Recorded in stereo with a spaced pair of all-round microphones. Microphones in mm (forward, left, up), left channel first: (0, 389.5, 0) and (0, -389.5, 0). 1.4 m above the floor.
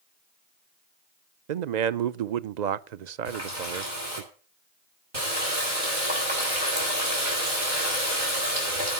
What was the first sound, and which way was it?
A man speaking, 65° right (ahead or behind).